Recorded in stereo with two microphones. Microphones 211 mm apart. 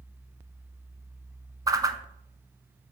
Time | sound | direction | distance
1.7 | a whoosh | 20° right (ahead or behind) | 0.5 m